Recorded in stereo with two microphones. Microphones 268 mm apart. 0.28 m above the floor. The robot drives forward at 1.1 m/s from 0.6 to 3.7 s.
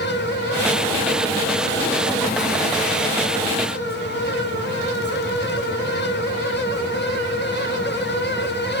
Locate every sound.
Only background noise.